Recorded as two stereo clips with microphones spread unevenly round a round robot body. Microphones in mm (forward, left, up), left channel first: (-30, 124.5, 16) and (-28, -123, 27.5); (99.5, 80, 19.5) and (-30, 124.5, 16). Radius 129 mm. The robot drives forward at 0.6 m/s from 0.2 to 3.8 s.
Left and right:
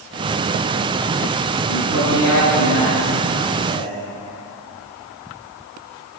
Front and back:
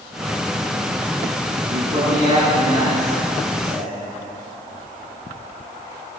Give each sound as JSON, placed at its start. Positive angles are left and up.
{"t": 1.7, "sound": "a man speaking", "azimuth_deg": 125, "distance_m": 7.0}